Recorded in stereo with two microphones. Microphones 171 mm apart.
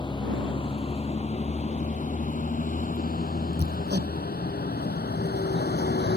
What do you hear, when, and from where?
0.0 s a vehicle: 25° left (ahead or behind); by 6.2 s 80° left
3.6 s hammering: 80° right